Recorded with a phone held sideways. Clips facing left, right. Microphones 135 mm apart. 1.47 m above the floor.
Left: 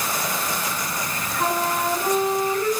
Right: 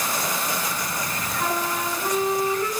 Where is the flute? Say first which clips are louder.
Left 4 dB; 45° left (ahead or behind), 6.5 m.